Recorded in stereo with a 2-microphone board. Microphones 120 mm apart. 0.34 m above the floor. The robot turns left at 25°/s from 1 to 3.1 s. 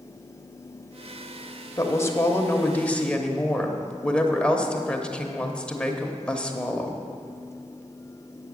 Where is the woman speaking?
50° left, 1.0 m; by 7.0 s 15° left, 1.0 m.